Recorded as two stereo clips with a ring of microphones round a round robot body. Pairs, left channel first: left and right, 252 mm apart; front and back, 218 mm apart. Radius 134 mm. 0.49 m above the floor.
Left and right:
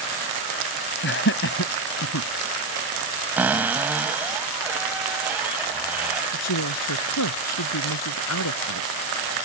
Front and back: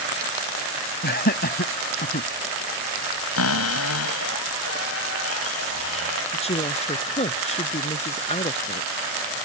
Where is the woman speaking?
60° left.